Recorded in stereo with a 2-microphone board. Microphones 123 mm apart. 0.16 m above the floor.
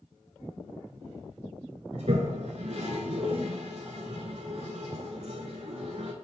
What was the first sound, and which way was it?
A toilet flushing, 65° right (ahead or behind).